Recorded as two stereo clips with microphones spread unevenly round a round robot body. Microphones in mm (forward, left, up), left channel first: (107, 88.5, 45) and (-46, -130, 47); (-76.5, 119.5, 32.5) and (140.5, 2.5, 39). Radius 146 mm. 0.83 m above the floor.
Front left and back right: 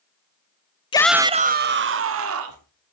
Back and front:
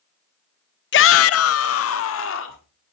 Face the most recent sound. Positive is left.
turn(degrees=-160)